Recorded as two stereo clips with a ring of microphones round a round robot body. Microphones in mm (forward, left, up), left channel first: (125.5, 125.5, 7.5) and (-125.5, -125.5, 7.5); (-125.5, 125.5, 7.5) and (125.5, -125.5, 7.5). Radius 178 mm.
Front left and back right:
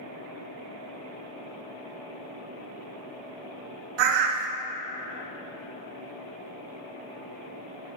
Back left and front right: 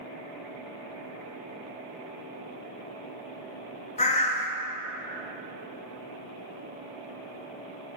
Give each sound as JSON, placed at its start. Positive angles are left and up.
{"t": 4.0, "sound": "a bird", "azimuth_deg": -155, "distance_m": 1.1}